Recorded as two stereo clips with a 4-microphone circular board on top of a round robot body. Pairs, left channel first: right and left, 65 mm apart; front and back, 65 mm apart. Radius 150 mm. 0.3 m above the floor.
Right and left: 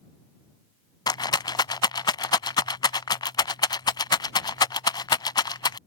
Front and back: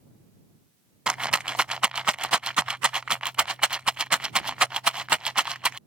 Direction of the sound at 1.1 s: 100° right.